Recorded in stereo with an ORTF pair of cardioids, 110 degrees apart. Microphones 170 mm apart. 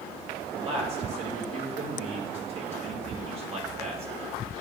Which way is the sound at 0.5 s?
40° right.